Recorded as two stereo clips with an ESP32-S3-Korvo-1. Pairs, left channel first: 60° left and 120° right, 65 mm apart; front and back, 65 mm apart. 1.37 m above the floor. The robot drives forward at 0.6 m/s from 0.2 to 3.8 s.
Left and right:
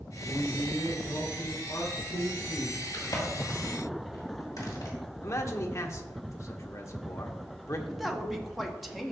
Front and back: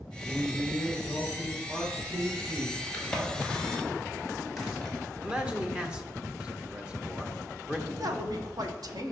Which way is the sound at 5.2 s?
105° left.